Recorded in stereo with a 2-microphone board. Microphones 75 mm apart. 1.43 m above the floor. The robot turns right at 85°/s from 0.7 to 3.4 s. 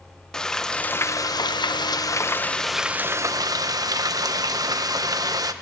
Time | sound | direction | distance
0.3 | frying | 10° left | 0.8 m